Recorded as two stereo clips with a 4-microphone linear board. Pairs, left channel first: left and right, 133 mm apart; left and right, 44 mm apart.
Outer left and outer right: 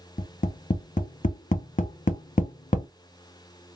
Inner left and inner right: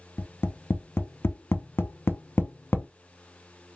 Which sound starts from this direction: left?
Tapping, at 0.2 s.